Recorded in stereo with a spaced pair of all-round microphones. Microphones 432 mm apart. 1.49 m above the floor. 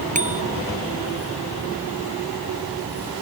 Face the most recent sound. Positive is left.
turn(degrees=-15)  # may be behind; listen again after turning